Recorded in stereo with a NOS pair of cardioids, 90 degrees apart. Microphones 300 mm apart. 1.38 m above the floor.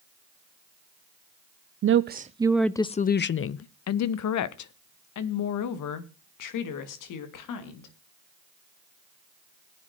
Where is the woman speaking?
45° right, 0.6 m; by 8.0 s 80° left, 3 m.